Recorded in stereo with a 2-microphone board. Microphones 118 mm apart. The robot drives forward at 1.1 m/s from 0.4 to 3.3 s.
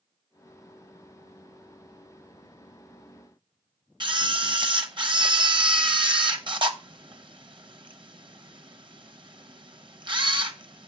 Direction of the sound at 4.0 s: 45° right (ahead or behind).